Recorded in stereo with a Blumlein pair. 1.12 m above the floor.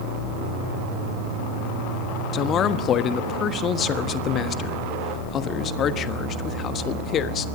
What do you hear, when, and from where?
2.3 s a man speaking: 30° left, 1.3 m